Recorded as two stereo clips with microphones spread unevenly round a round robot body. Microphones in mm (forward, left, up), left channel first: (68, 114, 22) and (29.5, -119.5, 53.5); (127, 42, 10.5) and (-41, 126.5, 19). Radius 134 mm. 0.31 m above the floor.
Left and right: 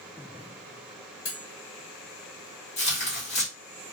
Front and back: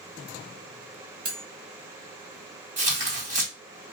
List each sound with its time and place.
1.2 s cutlery clinking: 115° left, 1.2 m
2.8 s tearing paper: 120° left, 1.9 m